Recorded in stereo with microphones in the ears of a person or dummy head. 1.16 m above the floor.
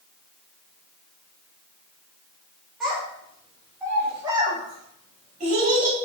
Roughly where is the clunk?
No clunk in this recording.